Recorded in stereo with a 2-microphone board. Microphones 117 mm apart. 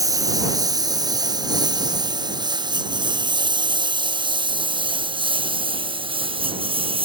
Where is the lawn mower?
30° right (ahead or behind); by 7.0 s 50° right (ahead or behind).